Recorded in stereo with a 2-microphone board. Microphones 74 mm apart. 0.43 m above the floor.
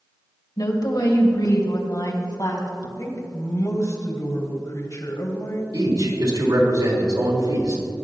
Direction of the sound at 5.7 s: 65° right (ahead or behind).